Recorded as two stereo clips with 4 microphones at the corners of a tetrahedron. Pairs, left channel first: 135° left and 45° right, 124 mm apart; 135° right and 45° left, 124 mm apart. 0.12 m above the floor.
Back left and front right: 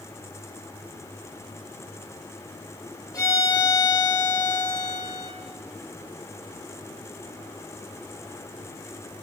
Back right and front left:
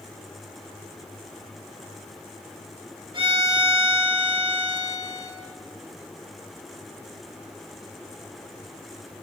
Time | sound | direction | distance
3.1 | a violin | 80° left | 2 m